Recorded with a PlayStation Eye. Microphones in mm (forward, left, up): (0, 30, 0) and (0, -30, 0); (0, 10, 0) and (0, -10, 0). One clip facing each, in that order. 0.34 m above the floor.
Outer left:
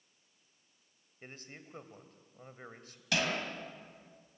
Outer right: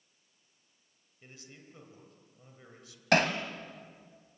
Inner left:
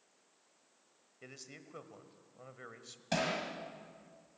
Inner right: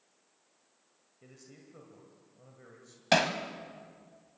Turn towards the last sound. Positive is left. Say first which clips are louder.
# outer right 7 dB, inner right 8 dB
turn(degrees=-50)  # may be behind; listen again after turning